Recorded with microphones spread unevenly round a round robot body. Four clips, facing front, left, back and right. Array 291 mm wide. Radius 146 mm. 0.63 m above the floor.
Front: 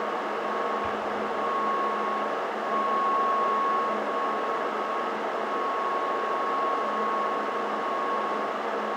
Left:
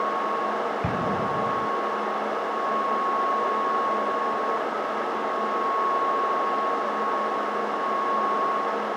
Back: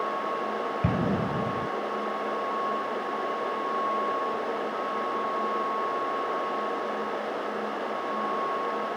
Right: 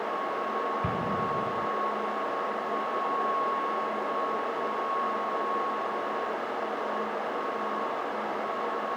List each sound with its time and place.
0.8 s an explosion: 165° left